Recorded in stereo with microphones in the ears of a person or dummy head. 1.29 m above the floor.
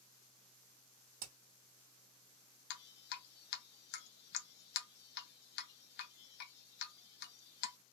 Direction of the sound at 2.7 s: 55° left (ahead or behind).